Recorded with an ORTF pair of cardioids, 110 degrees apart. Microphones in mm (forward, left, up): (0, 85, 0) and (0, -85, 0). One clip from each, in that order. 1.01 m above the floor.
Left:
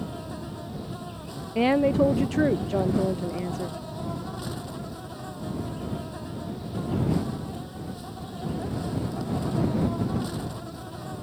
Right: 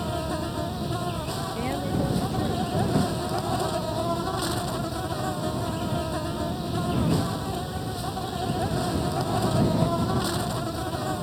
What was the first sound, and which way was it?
An insect, 55° right.